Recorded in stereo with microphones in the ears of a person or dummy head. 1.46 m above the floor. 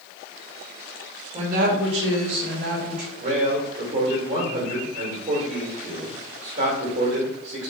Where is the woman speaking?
40° right (ahead or behind), 0.9 m; by 3.1 s 55° right (ahead or behind), 1.8 m.